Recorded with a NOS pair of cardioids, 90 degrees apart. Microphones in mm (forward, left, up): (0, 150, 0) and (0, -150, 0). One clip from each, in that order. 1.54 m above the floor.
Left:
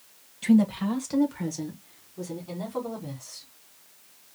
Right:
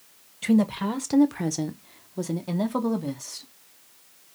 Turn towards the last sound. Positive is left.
turn(degrees=-75)